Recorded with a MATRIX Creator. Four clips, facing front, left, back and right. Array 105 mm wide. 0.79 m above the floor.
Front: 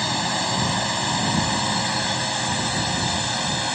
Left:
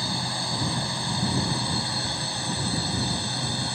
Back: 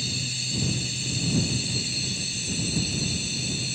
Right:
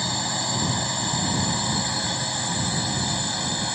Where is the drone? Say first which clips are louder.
Right 2 dB, front 12 dB; 10° right.